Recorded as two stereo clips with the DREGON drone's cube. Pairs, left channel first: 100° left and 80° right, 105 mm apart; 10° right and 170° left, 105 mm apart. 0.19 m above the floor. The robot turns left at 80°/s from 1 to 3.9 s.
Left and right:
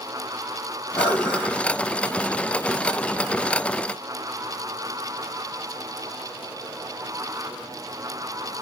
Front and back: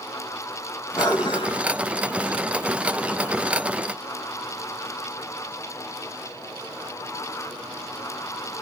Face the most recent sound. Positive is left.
turn(degrees=180)